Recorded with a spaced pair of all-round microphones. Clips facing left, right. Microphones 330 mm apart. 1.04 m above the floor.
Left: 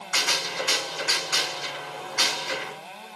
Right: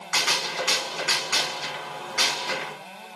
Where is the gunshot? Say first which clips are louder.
Right 1 dB; 80° right, 1.7 m.